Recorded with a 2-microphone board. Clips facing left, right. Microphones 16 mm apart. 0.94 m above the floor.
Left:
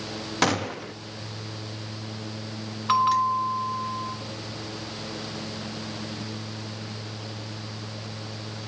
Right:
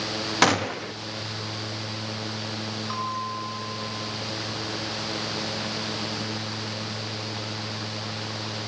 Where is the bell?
55° left (ahead or behind), 3 m.